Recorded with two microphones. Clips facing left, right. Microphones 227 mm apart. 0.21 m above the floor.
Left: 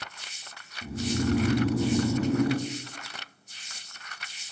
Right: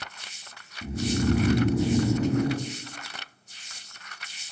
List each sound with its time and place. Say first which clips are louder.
0.8 s snoring: right 2 dB; 20° right (ahead or behind), 1.6 m